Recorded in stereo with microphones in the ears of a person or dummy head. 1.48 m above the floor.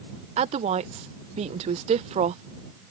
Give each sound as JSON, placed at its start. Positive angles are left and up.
{"t": 0.4, "sound": "a woman speaking", "side_deg": -35}